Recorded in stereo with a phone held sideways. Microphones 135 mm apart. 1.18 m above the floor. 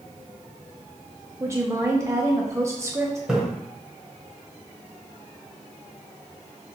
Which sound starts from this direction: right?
A woman speaking, at 1.4 s.